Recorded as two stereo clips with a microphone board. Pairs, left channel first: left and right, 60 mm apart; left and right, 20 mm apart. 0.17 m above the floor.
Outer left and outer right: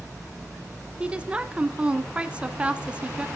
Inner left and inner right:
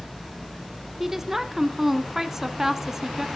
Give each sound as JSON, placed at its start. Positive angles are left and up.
{"t": 1.0, "sound": "a woman speaking", "side_deg": -20, "distance_m": 1.3}